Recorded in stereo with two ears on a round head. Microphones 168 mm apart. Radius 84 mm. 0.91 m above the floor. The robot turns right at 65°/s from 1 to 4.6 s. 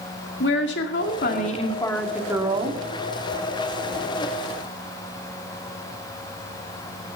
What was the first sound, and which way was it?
A woman speaking, 105° left.